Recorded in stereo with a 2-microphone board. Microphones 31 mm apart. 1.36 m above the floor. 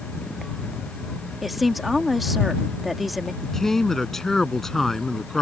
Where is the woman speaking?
5° right (ahead or behind).